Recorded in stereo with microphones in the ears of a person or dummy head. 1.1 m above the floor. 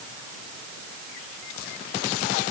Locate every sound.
Only background noise.